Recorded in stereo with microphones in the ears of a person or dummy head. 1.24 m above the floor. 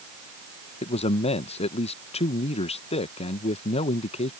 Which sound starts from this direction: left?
A man speaking, at 0.8 s.